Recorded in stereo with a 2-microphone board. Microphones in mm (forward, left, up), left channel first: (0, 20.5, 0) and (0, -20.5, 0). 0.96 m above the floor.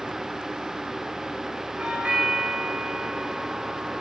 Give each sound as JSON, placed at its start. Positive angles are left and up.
{"t": 1.8, "sound": "a doorbell", "side_deg": -30, "distance_m": 5.5}